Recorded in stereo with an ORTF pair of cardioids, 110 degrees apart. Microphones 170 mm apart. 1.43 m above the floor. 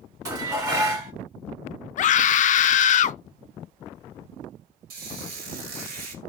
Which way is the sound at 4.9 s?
70° right.